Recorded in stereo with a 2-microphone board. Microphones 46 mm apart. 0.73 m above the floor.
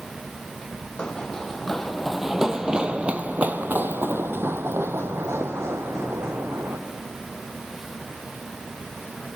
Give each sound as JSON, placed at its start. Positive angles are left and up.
{"t": 1.0, "sound": "running footsteps", "side_deg": 20, "distance_m": 1.7}